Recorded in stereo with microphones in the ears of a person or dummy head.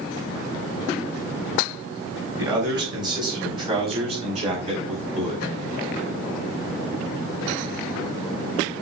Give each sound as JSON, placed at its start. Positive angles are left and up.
{"t": 2.4, "sound": "a man speaking", "side_deg": -20, "distance_m": 4.5}